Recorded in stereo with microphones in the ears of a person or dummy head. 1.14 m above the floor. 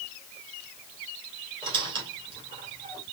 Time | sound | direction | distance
1.6 | a squeak | 30° right (ahead or behind) | 2.5 m